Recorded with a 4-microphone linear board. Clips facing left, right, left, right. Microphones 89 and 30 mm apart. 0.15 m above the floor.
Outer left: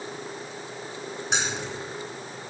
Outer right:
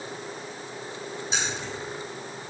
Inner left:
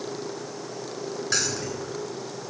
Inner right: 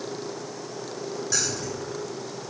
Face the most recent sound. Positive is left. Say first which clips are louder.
# outer left 3 dB, inner left 3 dB
turn(degrees=65)  # may be behind; listen again after turning